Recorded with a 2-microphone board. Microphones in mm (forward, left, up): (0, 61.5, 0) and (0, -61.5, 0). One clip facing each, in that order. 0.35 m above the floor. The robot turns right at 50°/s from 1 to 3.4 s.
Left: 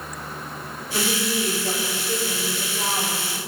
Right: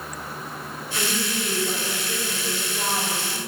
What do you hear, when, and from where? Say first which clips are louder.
0.9 s a woman speaking: left 4 dB; 95° left, 5 m; by 3.4 s 145° right, 5 m